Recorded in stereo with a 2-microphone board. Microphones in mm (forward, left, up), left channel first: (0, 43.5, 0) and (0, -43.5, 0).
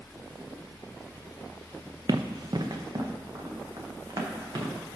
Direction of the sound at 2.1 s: 55° right (ahead or behind).